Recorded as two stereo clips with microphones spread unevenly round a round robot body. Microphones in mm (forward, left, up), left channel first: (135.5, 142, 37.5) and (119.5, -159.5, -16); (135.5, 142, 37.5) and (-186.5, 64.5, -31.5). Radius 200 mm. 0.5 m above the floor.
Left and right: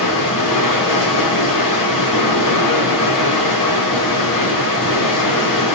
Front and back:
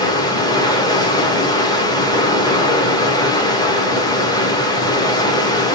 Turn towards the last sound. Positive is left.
turn(degrees=100)